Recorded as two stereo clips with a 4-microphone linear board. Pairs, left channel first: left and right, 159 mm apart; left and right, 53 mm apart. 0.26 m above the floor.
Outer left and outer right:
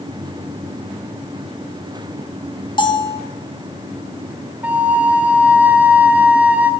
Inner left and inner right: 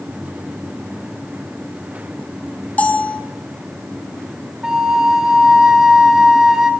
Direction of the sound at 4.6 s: 10° right (ahead or behind).